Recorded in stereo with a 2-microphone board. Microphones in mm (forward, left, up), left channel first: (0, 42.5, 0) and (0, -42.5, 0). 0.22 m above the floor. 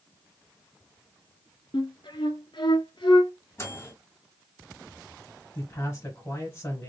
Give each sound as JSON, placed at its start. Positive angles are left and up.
{"t": 1.7, "sound": "a flute", "side_deg": 80, "distance_m": 0.6}
{"t": 3.6, "sound": "a microwave", "side_deg": 35, "distance_m": 1.5}
{"t": 5.5, "sound": "a man speaking", "side_deg": 30, "distance_m": 1.1}